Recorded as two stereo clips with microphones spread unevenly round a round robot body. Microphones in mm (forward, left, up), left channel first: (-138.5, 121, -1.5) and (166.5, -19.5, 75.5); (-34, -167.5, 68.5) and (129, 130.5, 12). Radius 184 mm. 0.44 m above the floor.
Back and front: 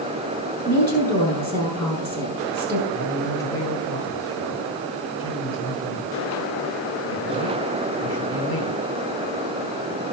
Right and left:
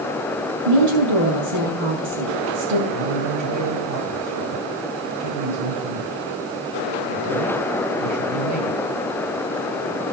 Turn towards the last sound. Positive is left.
turn(degrees=105)